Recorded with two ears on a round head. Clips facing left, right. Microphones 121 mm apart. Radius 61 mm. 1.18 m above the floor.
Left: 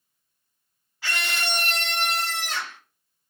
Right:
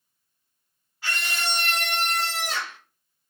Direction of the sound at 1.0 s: 60° left (ahead or behind).